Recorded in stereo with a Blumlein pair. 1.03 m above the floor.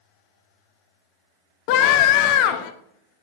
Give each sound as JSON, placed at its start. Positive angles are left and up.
{"t": 1.7, "sound": "a scream", "azimuth_deg": 45, "distance_m": 0.8}